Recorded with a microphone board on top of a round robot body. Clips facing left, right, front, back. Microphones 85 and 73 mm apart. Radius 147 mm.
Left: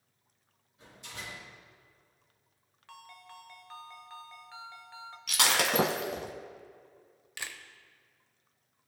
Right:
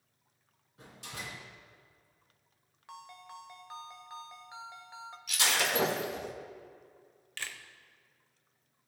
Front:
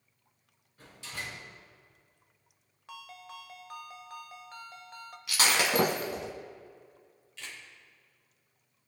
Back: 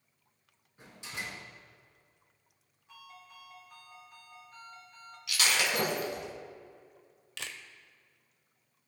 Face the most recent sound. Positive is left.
turn(degrees=165)